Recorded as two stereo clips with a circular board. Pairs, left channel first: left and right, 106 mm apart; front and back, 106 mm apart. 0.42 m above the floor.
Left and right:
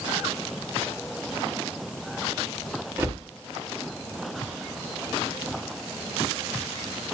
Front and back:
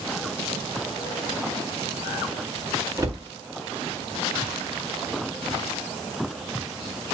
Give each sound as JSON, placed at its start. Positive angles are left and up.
{"t": 3.0, "sound": "a cupboard door", "azimuth_deg": -145, "distance_m": 1.6}